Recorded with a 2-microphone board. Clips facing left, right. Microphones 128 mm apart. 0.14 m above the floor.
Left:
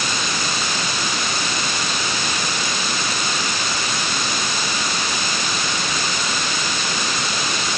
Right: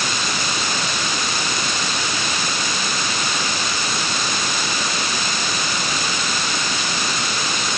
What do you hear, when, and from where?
Only background noise.